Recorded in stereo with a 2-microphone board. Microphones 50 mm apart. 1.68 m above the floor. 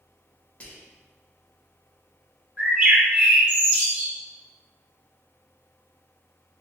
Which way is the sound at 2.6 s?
30° right (ahead or behind).